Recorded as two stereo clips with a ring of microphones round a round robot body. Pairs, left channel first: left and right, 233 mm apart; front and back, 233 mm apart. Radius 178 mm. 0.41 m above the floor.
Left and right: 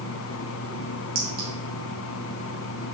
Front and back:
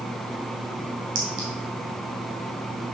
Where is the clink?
145° right, 1.7 m.